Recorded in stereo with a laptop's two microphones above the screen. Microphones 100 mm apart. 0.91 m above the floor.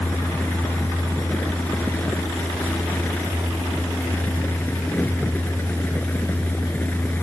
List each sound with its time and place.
0.0 s a fan: 15° left (ahead or behind)